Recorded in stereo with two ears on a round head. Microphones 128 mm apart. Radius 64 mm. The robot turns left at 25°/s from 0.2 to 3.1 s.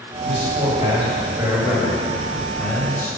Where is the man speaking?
125° right, 2.5 m; by 3.1 s 165° left, 2.5 m.